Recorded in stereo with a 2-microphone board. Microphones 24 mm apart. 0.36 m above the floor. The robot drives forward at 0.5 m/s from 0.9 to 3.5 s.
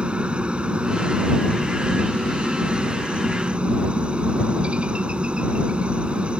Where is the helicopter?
55° right (ahead or behind).